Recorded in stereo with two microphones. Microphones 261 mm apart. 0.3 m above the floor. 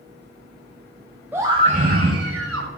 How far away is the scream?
About 1.1 m.